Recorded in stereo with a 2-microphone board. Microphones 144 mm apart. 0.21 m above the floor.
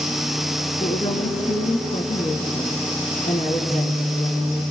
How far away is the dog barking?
I don't hear a dog barking.